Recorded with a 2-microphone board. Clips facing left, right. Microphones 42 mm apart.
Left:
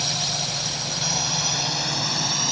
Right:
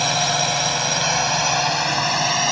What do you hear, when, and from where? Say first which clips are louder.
0.0 s a drone: right 8 dB; 55° right (ahead or behind); by 2.5 s 75° right (ahead or behind)